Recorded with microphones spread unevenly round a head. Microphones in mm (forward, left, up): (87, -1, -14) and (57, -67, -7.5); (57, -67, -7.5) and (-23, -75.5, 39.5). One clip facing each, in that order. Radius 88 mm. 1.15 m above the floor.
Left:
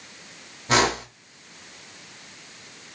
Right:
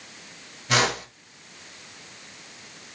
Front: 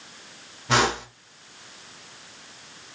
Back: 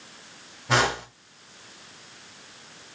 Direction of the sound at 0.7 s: 120° left.